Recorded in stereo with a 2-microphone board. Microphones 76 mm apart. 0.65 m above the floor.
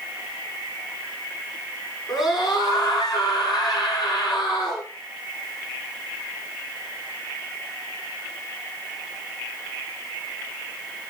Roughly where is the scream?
Left.